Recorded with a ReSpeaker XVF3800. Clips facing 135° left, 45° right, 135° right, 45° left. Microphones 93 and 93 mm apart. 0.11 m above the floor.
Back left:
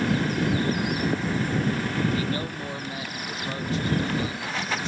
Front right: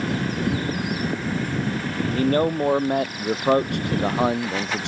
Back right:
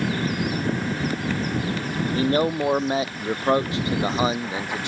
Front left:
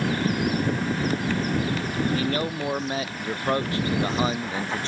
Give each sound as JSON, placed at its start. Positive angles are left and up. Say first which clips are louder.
{"t": 2.1, "sound": "a man speaking", "louder": "front right 9 dB, back right 5 dB", "azimuth_deg": -80}